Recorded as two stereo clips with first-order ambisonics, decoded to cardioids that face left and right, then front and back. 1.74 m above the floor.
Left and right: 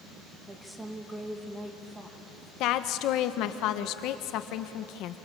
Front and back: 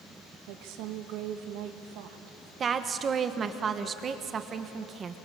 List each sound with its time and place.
0.5 s a woman speaking: 170° right, 2.0 m
2.6 s a woman speaking: 120° left, 1.2 m